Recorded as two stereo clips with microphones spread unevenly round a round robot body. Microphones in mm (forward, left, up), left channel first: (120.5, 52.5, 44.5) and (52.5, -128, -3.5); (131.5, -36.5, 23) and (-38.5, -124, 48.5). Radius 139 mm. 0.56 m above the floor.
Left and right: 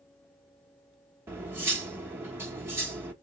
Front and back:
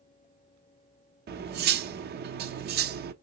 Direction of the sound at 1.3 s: 170° right.